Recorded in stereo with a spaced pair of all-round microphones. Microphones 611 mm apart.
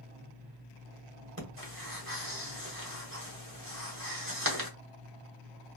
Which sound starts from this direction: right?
Breathing, at 1.4 s.